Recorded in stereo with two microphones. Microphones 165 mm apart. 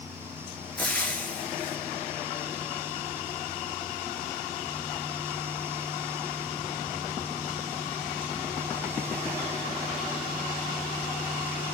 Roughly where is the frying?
Centre.